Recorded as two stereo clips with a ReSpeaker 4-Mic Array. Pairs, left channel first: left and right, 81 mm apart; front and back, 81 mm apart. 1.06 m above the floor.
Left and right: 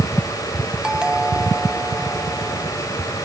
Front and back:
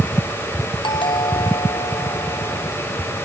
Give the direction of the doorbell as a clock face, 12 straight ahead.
12 o'clock.